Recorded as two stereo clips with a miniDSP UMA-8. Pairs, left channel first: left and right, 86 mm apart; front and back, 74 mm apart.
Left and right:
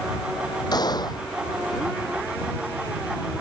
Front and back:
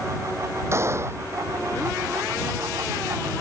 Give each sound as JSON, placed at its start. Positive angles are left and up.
{"t": 0.7, "sound": "a gunshot", "azimuth_deg": 125}